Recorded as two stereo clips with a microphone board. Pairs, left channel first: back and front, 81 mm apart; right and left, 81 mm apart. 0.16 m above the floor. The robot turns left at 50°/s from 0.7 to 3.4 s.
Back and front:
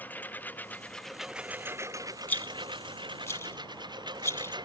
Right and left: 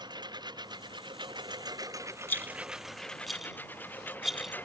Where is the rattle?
130° right; by 4.5 s 175° left.